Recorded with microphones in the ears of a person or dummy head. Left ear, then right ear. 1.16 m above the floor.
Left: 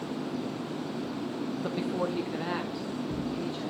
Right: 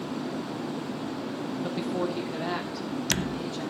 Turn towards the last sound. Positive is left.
turn(degrees=5)  # may be behind; listen again after turning